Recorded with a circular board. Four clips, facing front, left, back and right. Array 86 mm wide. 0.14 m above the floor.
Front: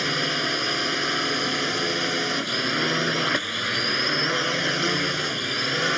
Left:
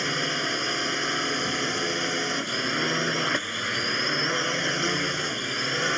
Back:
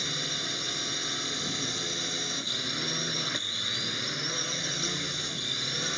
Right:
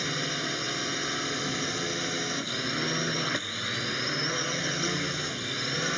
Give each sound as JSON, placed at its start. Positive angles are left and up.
{"t": 0.0, "sound": "a drone", "azimuth_deg": 25}